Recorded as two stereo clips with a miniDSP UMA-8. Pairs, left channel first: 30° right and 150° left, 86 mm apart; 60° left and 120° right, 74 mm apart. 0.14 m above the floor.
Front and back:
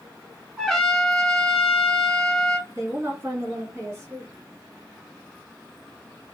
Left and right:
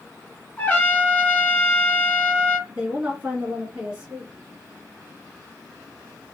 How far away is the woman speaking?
About 1.7 m.